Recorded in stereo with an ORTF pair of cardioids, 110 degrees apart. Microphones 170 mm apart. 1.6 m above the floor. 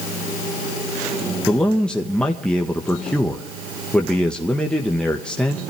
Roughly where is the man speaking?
Ahead.